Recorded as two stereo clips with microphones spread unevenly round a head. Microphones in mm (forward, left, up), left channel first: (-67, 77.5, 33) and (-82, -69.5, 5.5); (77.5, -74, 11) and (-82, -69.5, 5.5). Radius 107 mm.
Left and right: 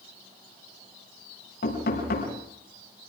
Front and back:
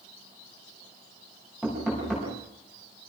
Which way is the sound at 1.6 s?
90° left.